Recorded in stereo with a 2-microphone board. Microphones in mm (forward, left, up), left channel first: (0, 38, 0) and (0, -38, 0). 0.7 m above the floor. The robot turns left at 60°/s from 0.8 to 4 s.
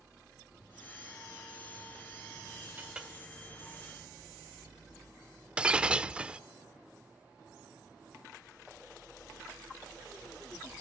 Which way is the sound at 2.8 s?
25° right (ahead or behind).